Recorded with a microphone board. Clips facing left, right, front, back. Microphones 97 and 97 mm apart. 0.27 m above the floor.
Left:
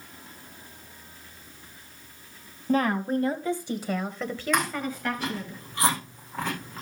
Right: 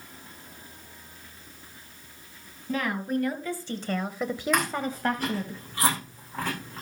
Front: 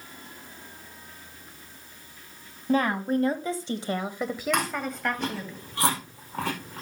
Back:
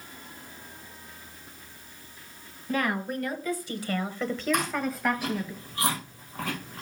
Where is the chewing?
5° right, 8 m.